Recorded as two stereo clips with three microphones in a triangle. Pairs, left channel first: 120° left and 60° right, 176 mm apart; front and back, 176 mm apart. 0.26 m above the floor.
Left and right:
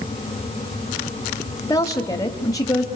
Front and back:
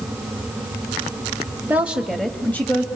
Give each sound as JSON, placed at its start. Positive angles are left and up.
{"t": 1.7, "sound": "a woman speaking", "azimuth_deg": 125, "distance_m": 1.2}